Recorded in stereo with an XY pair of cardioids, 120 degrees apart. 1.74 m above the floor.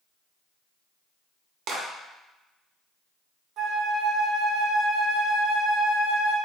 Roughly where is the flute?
Ahead right.